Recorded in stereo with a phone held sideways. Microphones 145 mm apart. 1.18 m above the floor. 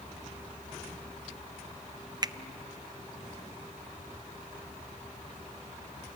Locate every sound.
2.2 s a finger snap: 30° right (ahead or behind), 0.5 m